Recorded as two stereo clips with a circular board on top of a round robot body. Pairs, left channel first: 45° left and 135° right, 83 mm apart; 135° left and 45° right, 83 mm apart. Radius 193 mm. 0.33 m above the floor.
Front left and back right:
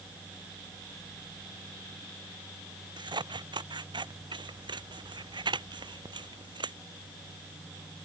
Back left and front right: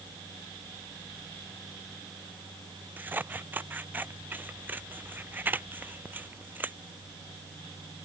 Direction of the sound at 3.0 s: 110° right.